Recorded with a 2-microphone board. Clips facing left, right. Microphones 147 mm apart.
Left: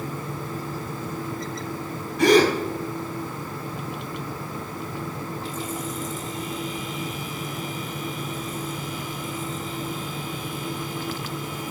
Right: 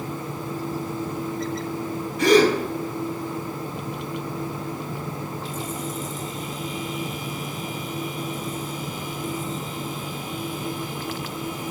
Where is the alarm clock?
No alarm clock in this recording.